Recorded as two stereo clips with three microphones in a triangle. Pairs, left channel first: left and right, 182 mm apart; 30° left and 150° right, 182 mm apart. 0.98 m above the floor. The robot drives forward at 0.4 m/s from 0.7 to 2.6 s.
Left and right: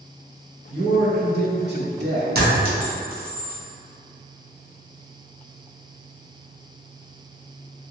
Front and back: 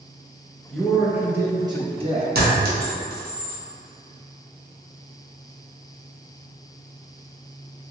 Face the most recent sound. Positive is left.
turn(degrees=-125)